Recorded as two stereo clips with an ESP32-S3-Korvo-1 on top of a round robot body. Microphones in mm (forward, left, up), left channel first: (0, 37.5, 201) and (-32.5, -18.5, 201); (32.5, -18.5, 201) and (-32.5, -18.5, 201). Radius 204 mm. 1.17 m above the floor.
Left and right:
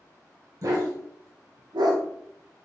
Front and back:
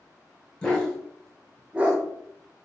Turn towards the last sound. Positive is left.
turn(degrees=-115)